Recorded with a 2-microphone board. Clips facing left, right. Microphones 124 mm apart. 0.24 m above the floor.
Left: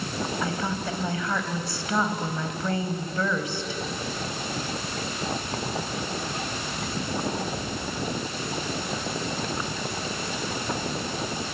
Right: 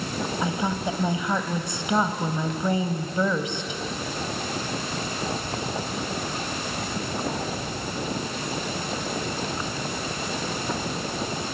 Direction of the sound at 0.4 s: 20° right (ahead or behind).